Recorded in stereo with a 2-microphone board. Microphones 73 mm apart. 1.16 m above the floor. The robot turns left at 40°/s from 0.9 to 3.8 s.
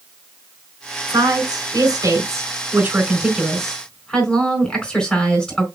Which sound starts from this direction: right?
A woman speaking, at 1.1 s.